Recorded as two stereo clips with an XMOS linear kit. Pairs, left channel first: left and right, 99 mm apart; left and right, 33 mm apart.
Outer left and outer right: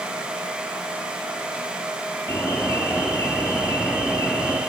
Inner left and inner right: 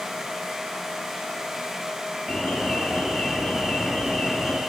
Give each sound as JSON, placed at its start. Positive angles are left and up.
{"t": 2.3, "sound": "an alarm", "side_deg": 35, "distance_m": 4.0}